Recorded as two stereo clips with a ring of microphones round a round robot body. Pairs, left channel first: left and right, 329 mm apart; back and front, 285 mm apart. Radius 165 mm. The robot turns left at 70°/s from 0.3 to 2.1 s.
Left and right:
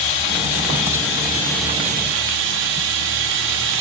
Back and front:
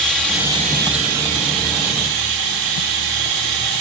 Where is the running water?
90° left, 9 m; by 3.8 s 35° right, 9 m.